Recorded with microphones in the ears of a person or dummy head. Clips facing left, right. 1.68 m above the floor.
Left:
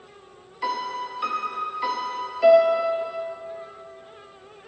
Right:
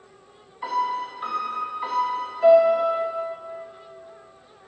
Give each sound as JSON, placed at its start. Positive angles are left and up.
{"t": 0.6, "sound": "a piano", "side_deg": 40, "distance_m": 0.7}